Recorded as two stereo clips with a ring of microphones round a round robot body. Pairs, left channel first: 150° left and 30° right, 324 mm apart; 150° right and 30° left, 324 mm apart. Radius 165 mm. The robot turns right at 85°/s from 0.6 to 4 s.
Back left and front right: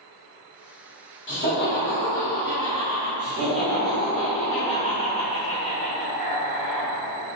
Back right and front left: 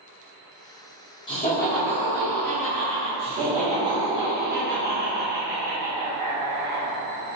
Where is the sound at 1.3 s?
145° left, 1.0 m; by 3.1 s 60° right, 1.0 m.